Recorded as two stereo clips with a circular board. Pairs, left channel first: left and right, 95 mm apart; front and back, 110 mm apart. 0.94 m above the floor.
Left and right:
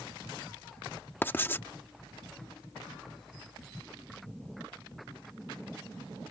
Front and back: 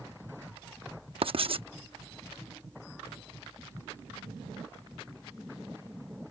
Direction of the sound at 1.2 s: 155° left.